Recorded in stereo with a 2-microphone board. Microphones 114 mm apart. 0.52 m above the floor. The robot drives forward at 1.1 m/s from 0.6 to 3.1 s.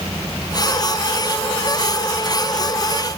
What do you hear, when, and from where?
Only background noise.